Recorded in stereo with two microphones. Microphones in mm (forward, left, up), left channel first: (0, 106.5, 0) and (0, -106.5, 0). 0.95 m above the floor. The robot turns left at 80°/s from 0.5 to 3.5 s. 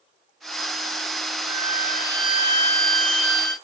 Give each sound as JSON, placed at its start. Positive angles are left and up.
{"t": 1.5, "sound": "a violin", "azimuth_deg": 40, "distance_m": 1.7}